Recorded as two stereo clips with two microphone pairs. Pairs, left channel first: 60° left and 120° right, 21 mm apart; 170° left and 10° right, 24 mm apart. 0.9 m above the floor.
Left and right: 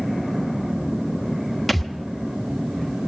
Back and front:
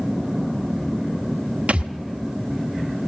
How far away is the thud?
About 1.2 m.